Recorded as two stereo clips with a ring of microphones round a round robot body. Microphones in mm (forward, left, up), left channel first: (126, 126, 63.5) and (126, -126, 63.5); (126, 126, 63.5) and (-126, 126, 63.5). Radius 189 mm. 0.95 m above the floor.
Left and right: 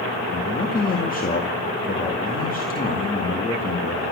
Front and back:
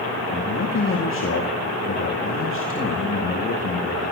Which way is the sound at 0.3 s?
35° left.